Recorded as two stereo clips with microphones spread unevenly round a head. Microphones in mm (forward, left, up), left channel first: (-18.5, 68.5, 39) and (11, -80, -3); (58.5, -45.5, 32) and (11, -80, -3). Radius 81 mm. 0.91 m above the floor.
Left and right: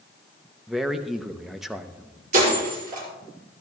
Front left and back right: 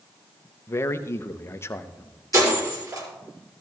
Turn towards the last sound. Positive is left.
turn(degrees=-120)